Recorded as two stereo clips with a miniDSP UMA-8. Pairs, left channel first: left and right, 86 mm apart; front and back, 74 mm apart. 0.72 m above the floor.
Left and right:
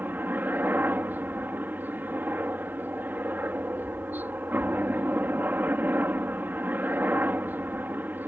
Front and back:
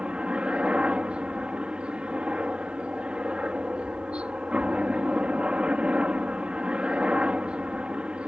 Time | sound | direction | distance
0.0 | a helicopter | 125° right | ?